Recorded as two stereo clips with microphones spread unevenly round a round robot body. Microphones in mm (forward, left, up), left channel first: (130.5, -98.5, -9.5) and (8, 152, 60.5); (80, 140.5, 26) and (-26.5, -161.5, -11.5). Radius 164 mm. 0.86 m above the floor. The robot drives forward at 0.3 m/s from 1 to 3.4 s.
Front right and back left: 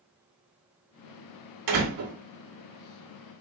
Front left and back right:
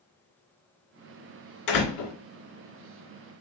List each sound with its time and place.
1.7 s a door slam: 110° left, 1.9 m; by 2.1 s 115° left, 2.0 m